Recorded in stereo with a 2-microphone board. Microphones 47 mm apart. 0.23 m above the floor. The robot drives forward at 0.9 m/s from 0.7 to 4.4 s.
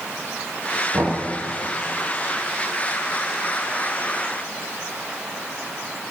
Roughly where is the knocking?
Right.